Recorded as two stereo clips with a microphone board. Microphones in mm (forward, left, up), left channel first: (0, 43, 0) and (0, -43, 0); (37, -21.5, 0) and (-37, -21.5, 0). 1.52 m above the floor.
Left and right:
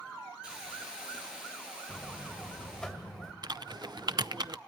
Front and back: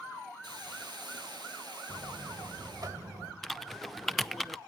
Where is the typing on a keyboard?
90° right, 0.5 m.